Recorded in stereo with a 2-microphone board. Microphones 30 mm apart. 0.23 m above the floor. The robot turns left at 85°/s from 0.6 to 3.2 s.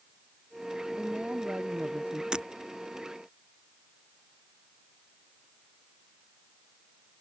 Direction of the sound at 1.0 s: 30° right.